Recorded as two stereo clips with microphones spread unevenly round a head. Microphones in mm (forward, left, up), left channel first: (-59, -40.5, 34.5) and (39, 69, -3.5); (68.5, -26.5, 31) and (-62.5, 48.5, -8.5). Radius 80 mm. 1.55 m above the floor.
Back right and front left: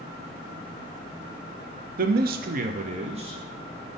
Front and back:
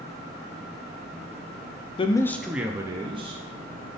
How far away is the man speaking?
About 0.5 m.